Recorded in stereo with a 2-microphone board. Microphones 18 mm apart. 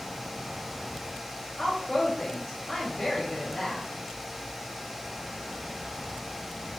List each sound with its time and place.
1.6 s a woman speaking: 30° left (ahead or behind), 1.9 m